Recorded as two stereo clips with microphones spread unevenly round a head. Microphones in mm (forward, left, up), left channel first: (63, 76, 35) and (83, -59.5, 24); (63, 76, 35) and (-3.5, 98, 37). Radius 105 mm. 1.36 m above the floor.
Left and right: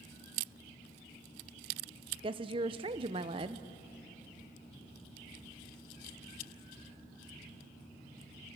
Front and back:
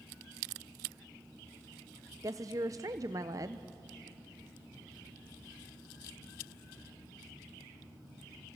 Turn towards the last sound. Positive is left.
turn(degrees=-140)